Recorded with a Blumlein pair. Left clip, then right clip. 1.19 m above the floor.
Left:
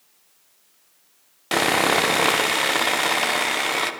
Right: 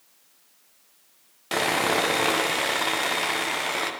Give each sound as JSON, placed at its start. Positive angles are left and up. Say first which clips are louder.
{"t": 1.5, "sound": "sawing", "louder": "left 4 dB", "azimuth_deg": 15, "distance_m": 0.6}